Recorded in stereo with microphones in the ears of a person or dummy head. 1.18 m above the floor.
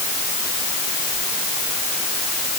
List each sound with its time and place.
Only background noise.